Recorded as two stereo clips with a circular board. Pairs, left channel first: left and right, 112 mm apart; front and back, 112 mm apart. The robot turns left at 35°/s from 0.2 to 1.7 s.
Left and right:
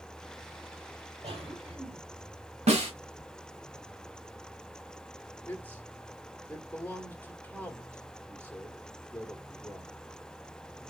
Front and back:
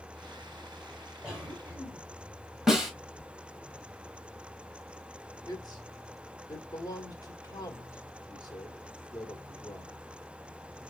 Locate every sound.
1.2 s a cough: 95° right, 3.5 m; by 2.0 s 115° right, 3.5 m
2.7 s a snare drum: 95° right, 1.4 m
5.5 s a man speaking: 25° left, 1.1 m